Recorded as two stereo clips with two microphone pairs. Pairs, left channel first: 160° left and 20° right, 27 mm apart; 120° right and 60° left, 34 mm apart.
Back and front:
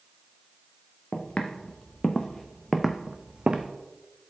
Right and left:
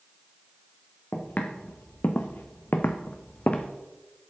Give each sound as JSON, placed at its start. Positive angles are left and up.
{"t": 1.1, "sound": "footsteps", "azimuth_deg": -155, "distance_m": 1.3}